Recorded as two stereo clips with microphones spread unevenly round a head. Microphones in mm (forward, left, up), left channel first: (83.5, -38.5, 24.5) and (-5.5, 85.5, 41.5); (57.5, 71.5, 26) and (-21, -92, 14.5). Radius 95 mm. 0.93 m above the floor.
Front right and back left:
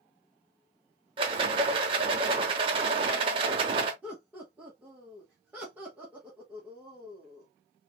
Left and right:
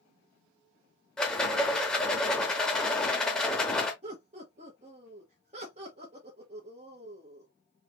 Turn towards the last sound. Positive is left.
turn(degrees=-150)